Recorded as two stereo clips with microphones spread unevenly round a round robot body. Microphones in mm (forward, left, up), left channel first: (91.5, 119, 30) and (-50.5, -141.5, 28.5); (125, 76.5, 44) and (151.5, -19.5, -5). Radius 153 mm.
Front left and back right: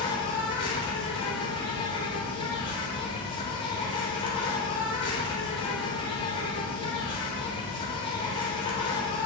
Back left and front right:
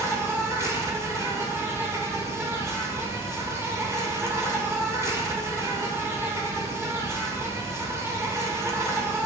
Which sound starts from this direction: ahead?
An insect, at 0.0 s.